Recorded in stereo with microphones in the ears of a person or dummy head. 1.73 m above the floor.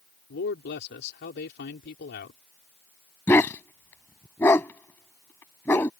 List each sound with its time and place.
0.3 s a man speaking: 60° left (ahead or behind)
3.3 s a dog barking: 10° left (ahead or behind)